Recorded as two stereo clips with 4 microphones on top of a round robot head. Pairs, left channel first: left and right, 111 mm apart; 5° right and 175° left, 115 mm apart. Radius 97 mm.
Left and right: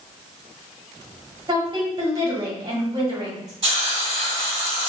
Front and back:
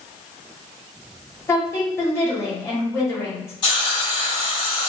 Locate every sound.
1.5 s a woman speaking: 60° right, 1.3 m
3.6 s a hiss: 50° right, 1.9 m